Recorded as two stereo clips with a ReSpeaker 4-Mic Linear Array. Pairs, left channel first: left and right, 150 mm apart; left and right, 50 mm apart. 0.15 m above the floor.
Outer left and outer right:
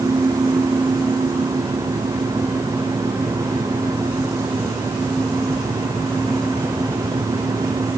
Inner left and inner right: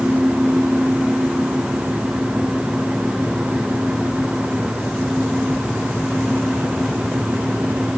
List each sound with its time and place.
Only background noise.